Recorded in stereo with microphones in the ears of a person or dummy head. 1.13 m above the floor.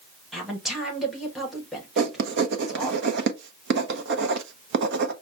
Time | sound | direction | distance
0.3 | a woman speaking | 5° right (ahead or behind) | 1.1 m
2.0 | writing | 65° right (ahead or behind) | 0.7 m